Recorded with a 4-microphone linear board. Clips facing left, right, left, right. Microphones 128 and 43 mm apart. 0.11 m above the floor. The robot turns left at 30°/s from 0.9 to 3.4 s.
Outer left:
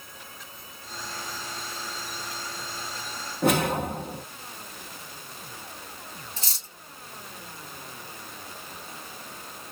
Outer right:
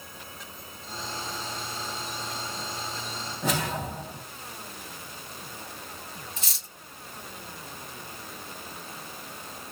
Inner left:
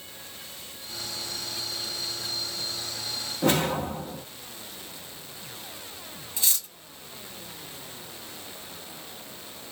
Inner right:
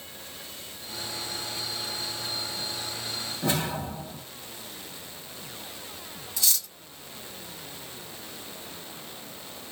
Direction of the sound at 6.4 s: 30° left (ahead or behind).